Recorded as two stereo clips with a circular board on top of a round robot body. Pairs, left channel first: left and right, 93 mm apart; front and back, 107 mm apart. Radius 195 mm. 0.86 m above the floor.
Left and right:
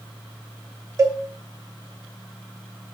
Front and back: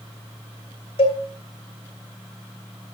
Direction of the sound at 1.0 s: 35° right.